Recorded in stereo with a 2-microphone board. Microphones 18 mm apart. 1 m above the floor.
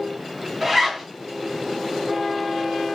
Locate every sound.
0.6 s a zipper: 20° right (ahead or behind), 1.1 m